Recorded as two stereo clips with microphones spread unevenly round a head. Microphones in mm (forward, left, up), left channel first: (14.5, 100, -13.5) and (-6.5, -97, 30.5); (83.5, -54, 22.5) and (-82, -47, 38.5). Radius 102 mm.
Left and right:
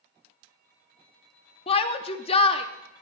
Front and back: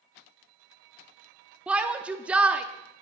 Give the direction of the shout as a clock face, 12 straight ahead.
9 o'clock.